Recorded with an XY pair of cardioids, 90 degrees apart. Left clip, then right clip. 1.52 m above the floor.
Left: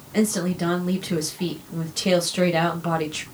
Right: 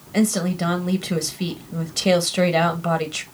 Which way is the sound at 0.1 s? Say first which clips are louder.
Right 1 dB; 30° right.